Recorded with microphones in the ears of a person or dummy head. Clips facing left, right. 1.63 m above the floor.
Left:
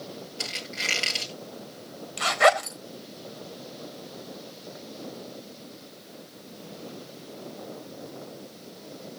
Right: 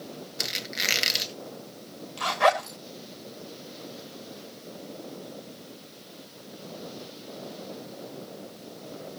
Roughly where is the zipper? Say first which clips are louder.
Left 2 dB; left.